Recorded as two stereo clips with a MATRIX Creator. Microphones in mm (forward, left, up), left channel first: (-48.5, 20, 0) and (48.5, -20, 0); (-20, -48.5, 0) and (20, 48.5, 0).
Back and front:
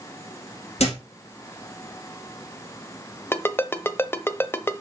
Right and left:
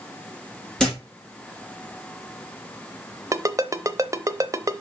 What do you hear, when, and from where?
0.8 s a thud: 165° left, 4 m
3.3 s a ringtone: 105° left, 0.6 m